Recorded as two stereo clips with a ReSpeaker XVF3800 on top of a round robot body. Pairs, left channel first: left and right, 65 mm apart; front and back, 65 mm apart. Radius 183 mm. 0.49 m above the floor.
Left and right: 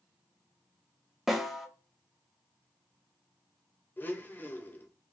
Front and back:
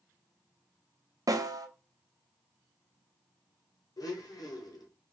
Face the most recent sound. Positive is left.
turn(degrees=30)